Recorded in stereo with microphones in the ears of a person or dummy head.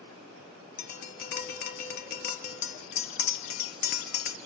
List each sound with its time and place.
0.8 s tapping: 60° left (ahead or behind), 1.4 m